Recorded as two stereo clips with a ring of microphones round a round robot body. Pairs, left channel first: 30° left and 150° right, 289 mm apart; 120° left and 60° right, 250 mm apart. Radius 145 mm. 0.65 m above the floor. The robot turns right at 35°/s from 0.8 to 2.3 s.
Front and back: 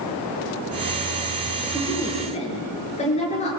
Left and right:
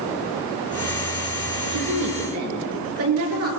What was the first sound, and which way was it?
A woman speaking, 65° right.